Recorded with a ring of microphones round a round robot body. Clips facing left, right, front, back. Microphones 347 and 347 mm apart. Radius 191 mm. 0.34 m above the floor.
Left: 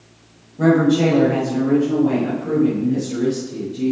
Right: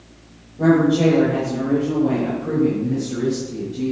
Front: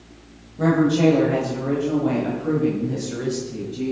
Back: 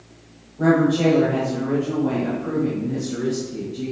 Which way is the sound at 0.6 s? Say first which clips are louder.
Even, even; 35° left.